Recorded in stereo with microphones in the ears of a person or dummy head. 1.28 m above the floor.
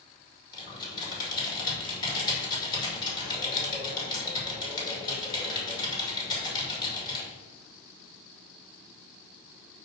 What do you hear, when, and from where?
0.5 s typing on a keyboard: 25° left (ahead or behind), 2.5 m